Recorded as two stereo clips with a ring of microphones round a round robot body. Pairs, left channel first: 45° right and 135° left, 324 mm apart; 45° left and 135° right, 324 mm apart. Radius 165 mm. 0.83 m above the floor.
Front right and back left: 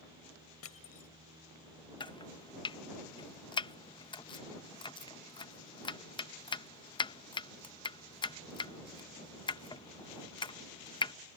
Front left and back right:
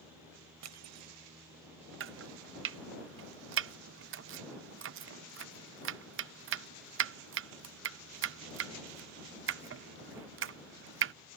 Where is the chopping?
115° right.